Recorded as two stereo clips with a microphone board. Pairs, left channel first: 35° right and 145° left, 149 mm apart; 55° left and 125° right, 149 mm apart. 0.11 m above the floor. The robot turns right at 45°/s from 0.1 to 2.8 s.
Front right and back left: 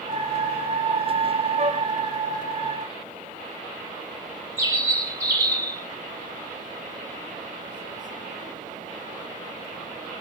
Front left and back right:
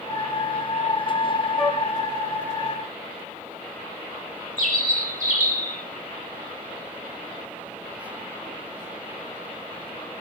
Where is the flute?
150° left, 1.3 m; by 1.8 s 160° left, 1.3 m.